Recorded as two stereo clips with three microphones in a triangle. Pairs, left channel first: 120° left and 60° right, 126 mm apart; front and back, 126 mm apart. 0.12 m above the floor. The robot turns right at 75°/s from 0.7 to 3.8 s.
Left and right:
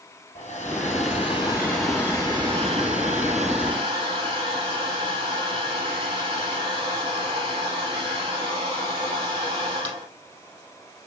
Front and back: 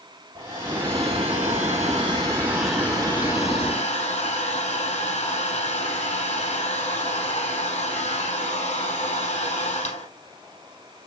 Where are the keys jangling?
No keys jangling in this recording.